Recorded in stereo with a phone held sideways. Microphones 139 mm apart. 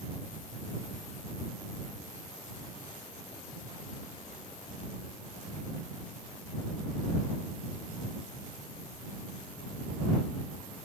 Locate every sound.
Only background noise.